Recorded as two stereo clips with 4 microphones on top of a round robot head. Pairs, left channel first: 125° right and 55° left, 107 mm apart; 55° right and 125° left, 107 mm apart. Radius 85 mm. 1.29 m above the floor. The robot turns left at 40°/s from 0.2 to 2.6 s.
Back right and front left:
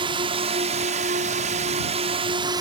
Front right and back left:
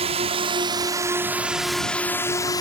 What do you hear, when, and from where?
0.0 s a drone: 95° left; by 2.6 s straight ahead